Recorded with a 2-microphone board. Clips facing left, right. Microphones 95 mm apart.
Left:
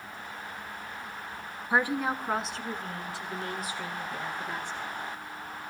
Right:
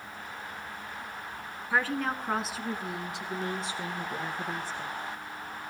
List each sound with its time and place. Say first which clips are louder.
1.7 s a woman speaking: left 2 dB; 20° left (ahead or behind), 1.1 m; by 4.9 s 45° right (ahead or behind), 1.9 m